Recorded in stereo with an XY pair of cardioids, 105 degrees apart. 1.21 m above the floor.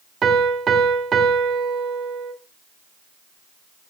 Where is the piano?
45° right, 2.0 m.